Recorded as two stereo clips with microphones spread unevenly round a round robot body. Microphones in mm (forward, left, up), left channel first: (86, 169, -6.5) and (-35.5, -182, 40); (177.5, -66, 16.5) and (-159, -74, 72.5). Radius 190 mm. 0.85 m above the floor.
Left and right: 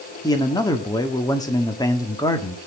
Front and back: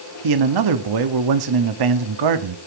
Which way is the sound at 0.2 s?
150° left.